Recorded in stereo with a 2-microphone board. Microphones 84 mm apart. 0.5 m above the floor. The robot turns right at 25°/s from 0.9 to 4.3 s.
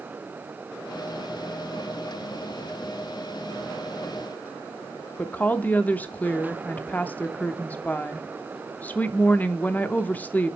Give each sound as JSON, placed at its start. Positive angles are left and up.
{"t": 5.2, "sound": "a woman speaking", "side_deg": 20, "distance_m": 0.8}